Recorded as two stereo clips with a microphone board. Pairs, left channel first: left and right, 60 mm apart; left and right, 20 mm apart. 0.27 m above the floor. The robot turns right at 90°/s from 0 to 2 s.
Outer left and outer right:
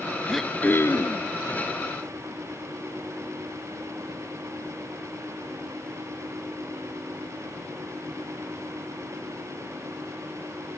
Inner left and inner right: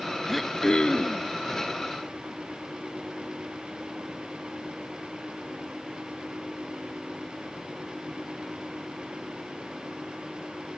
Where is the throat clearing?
Straight ahead, 0.8 m; by 1.2 s 85° left, 0.8 m.